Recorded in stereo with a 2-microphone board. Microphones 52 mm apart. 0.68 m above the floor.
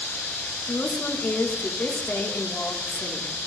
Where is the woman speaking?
45° left (ahead or behind), 1.4 m.